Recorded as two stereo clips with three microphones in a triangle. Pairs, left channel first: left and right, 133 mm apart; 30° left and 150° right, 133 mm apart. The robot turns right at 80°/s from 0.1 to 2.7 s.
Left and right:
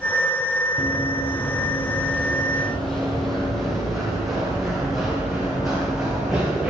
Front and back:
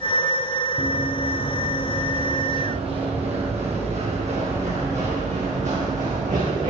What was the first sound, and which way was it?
Running footsteps, straight ahead.